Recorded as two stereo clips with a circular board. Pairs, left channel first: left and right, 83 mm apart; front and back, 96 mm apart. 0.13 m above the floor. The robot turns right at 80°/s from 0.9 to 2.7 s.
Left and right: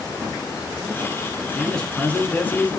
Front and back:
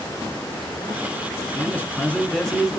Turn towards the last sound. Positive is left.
turn(degrees=100)